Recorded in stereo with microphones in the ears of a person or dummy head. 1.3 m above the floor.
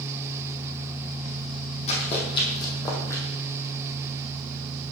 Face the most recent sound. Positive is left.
turn(degrees=10)  # may be behind; listen again after turning